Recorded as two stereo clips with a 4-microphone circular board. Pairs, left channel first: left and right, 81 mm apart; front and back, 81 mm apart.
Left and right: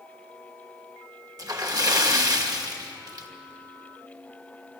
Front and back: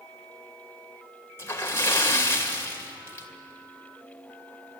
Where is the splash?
55° right, 2.5 m.